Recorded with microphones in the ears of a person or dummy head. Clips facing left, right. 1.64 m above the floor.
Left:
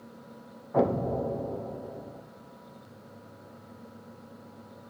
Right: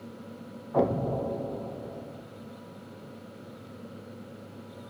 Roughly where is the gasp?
I don't hear a gasp.